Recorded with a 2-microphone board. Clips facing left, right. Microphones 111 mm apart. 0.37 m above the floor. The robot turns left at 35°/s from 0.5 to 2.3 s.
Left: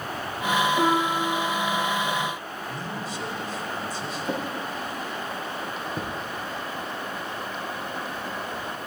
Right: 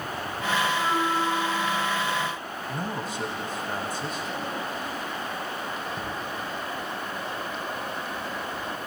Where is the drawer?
50° left (ahead or behind), 4.5 m.